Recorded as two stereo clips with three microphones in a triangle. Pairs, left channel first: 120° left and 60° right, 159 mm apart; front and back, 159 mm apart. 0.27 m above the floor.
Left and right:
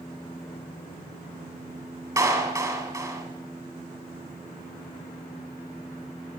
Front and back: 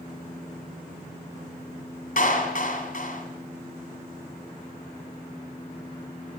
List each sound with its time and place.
2.2 s a clap: 5° left, 2 m